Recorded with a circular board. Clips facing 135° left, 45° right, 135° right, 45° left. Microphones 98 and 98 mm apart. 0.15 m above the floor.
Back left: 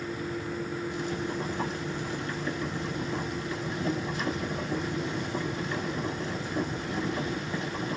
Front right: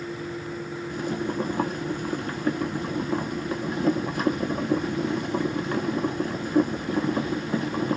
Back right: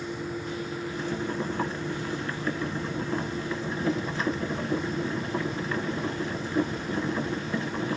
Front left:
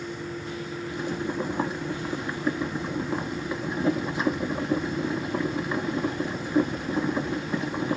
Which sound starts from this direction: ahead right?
Boiling, at 0.9 s.